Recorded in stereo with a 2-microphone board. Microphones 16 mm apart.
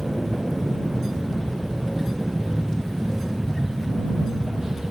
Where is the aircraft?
55° right (ahead or behind); by 4.9 s 40° right (ahead or behind).